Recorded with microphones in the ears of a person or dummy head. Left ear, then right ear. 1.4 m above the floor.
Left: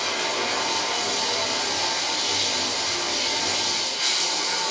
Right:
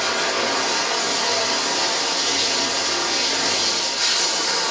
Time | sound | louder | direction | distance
0.0 | running water | right 4 dB | 45° right (ahead or behind) | 1.2 m